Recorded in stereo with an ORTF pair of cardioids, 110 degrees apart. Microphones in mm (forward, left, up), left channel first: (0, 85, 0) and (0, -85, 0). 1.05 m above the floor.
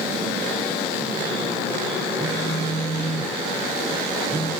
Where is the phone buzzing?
10° right, 0.7 m.